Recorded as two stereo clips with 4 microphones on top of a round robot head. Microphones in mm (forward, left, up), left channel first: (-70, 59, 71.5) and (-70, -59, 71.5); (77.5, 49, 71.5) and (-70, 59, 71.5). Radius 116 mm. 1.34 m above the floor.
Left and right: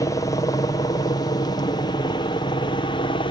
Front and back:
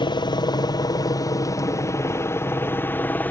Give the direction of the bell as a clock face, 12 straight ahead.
I don't hear a bell.